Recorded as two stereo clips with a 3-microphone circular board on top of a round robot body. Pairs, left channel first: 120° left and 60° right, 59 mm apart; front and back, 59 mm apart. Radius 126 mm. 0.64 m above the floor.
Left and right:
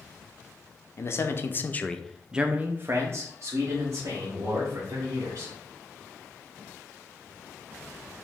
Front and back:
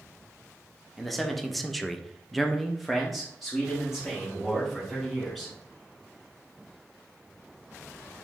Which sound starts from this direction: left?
A man speaking, at 1.0 s.